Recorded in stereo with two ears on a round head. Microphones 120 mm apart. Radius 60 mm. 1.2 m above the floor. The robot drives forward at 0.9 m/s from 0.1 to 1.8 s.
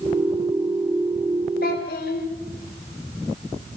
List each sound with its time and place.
1.6 s a child speaking: 75° left (ahead or behind), 3 m